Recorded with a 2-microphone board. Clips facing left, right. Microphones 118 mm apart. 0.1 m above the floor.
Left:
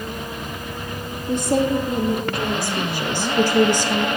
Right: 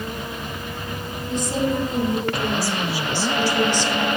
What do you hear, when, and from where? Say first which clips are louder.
1.3 s a woman speaking: left 4 dB; 55° left (ahead or behind), 3.5 m; by 4.1 s 45° left (ahead or behind), 2 m